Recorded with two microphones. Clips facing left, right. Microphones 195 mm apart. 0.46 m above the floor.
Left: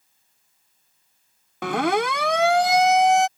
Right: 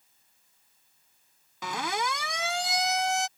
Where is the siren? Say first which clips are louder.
Left 11 dB; 65° left (ahead or behind); by 3.3 s 70° left (ahead or behind).